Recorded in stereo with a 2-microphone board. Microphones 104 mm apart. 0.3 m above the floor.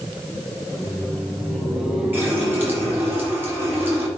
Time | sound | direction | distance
0.7 | laughter | 25° left (ahead or behind) | 1.7 m
2.1 | a running tap | 20° right (ahead or behind) | 3.5 m